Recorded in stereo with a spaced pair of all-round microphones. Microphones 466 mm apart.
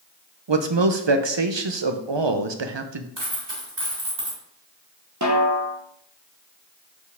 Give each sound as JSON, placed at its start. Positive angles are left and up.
{"t": 0.5, "sound": "a man speaking", "side_deg": -65, "distance_m": 0.8}
{"t": 3.2, "sound": "a dropped coin", "side_deg": -65, "distance_m": 3.0}
{"t": 5.2, "sound": "a snare drum", "side_deg": -35, "distance_m": 1.1}